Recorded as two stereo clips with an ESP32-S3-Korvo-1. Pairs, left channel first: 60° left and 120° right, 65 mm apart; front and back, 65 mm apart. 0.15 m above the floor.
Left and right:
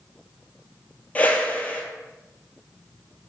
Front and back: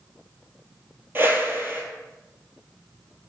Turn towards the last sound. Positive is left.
turn(degrees=125)